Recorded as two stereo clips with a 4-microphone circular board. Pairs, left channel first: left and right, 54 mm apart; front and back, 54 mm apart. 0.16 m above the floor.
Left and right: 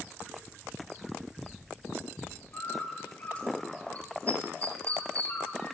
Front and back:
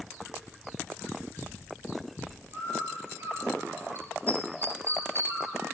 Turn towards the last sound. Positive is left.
turn(degrees=150)